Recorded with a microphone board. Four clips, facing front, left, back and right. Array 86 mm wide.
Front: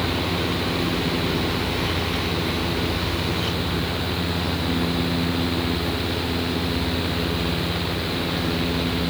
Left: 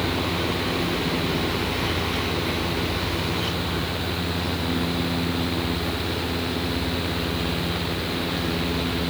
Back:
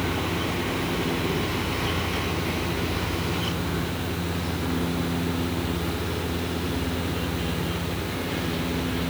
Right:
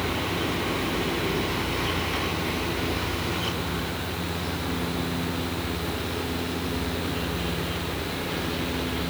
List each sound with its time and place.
Only background noise.